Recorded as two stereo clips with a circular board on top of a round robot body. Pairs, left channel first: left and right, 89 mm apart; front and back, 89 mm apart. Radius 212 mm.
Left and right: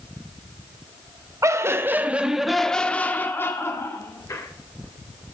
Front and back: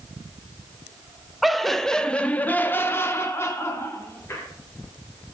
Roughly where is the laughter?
Right.